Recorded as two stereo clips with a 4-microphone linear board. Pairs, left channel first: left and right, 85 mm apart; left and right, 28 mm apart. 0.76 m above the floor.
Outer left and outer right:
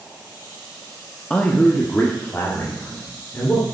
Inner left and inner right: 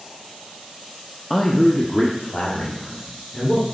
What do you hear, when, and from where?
1.3 s a man speaking: 15° left (ahead or behind), 0.8 m; by 3.6 s 35° left (ahead or behind), 2 m